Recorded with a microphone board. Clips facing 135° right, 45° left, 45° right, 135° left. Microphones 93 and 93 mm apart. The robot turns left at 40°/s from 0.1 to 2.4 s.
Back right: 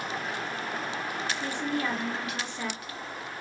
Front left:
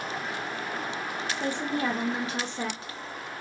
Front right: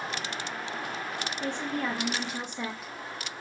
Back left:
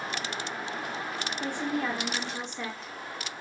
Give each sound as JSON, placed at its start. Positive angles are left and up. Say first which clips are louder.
{"t": 1.4, "sound": "a woman speaking", "louder": "front left 3 dB, back left 1 dB", "azimuth_deg": 70, "distance_m": 0.6}